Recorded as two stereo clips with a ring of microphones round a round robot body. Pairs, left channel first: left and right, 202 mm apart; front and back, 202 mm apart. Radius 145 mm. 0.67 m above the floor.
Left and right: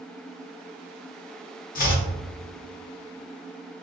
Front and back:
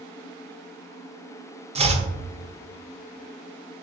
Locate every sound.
1.8 s chopping: 125° left, 0.6 m